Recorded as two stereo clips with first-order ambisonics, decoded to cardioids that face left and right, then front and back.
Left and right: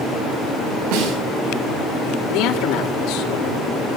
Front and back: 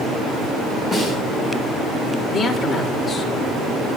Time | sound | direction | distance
0.9 | a snare drum | 95° right | 5.5 m
2.3 | a man speaking | 80° left | 3 m